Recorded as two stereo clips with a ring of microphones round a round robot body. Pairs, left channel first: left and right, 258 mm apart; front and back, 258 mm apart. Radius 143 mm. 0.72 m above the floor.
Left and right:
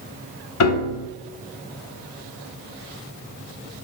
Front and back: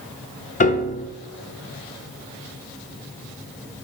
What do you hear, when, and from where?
0.6 s a piano: 65° left, 0.8 m